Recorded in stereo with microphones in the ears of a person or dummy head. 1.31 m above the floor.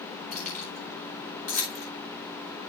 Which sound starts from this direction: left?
Keys jangling, at 0.3 s.